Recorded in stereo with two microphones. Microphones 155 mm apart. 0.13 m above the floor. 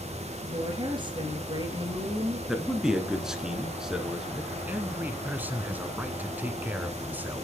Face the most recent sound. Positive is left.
turn(degrees=-10)  # may be behind; listen again after turning